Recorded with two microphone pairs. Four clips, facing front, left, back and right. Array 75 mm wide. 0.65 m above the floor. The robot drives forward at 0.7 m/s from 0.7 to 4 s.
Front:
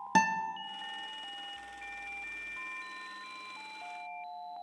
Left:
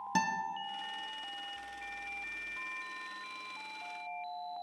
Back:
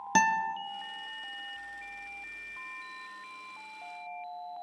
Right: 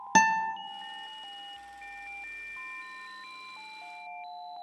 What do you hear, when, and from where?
0.1 s a guitar: 85° right, 0.6 m